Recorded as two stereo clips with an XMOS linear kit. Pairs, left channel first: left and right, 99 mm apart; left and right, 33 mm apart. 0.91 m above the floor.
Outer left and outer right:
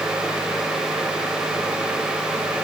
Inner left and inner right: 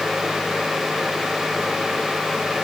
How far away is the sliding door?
No sliding door in this recording.